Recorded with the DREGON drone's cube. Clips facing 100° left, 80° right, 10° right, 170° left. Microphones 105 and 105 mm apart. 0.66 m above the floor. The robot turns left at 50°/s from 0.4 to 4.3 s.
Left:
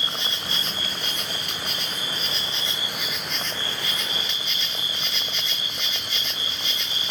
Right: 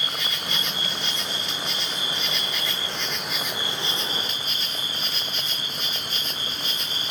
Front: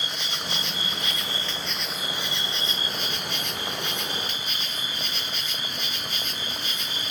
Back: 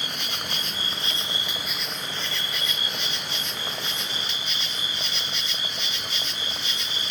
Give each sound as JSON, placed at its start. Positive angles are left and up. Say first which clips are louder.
{"t": 0.0, "sound": "an insect", "louder": "even, even", "azimuth_deg": 150, "distance_m": 0.9}